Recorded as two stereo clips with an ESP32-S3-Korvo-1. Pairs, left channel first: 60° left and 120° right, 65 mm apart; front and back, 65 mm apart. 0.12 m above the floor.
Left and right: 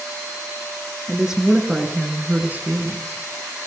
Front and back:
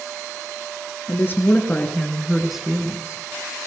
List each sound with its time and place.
1.1 s a woman speaking: 40° right, 2 m; by 3.2 s 135° right, 1.8 m